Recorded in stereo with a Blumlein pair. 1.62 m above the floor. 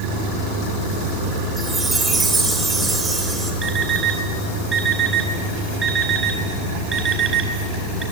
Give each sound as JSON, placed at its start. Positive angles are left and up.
{"t": 1.6, "sound": "a chime", "azimuth_deg": -10, "distance_m": 4.5}
{"t": 3.6, "sound": "an alarm clock", "azimuth_deg": -20, "distance_m": 5.5}